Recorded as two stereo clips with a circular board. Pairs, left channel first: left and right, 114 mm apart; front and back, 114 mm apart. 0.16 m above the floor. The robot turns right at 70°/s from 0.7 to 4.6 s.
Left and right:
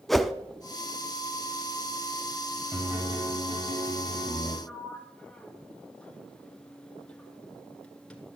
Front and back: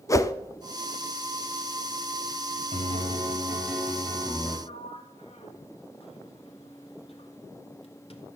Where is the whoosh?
Straight ahead, 0.5 m.